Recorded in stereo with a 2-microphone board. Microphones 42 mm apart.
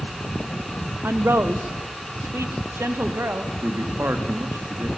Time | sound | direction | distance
1.0 | a woman speaking | 60° right (ahead or behind) | 0.8 m
3.6 | a man speaking | 70° right (ahead or behind) | 1.9 m